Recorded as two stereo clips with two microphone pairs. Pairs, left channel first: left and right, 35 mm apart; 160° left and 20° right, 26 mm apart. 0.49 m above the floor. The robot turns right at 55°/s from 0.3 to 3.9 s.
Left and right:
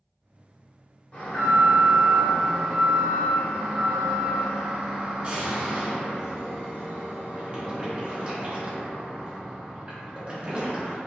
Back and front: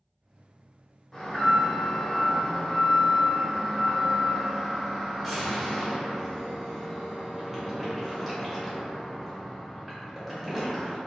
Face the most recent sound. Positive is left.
turn(degrees=-110)